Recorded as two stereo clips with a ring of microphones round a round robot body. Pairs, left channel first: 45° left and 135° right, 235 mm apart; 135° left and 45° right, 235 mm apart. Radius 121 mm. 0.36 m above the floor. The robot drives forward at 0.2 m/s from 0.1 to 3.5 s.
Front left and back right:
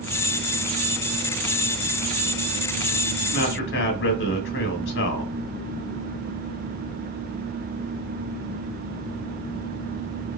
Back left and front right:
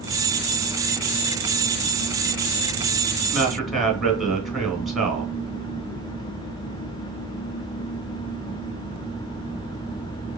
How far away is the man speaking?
About 1.4 m.